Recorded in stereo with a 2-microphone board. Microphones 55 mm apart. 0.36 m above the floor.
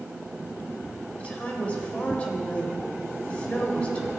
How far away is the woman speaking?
About 1.5 m.